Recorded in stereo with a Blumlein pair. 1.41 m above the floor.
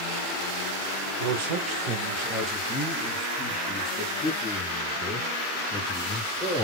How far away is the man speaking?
About 1.3 m.